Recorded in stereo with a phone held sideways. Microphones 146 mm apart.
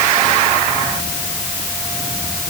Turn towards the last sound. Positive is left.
No sound to turn to.